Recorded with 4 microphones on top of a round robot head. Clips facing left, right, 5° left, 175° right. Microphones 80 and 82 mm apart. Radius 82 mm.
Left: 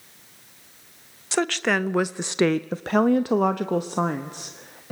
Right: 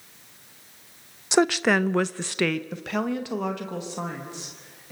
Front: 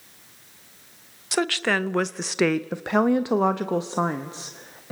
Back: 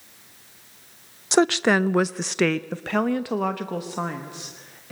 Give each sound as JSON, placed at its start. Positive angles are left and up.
{"t": 1.3, "sound": "a woman speaking", "azimuth_deg": -140, "distance_m": 0.7}